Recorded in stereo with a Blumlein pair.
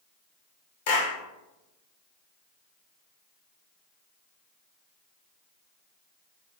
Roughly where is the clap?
Ahead left.